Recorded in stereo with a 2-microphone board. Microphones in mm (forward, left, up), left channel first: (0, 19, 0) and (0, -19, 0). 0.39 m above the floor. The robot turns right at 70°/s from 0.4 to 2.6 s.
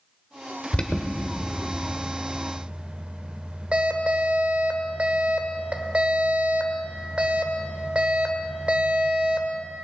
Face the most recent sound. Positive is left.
turn(degrees=-35)  # may be behind; listen again after turning